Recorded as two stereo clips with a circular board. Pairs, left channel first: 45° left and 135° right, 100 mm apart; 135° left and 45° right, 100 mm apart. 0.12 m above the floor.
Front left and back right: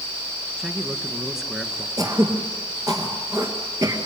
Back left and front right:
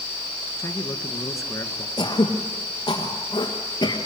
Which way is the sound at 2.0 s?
175° left.